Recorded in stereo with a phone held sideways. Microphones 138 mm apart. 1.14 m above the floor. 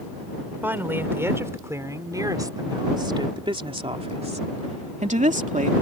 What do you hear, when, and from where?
0.6 s a woman speaking: 15° right (ahead or behind); by 5.7 s 70° right (ahead or behind)